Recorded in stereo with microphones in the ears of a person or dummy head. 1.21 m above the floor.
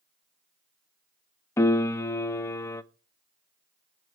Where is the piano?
15° left (ahead or behind), 0.6 m.